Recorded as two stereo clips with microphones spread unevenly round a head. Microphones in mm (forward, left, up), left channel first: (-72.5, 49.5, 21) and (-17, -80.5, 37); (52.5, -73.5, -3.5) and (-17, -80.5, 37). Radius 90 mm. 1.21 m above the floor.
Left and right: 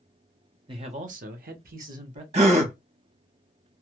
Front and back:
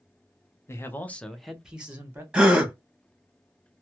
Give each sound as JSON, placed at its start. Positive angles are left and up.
{"t": 0.7, "sound": "a man speaking", "azimuth_deg": -5, "distance_m": 0.7}
{"t": 2.3, "sound": "a gasp", "azimuth_deg": -105, "distance_m": 0.8}